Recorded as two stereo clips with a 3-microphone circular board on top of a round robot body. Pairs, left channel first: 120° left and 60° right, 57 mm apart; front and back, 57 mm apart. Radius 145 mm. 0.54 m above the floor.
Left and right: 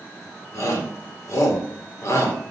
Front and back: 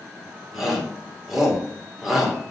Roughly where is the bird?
No bird in this recording.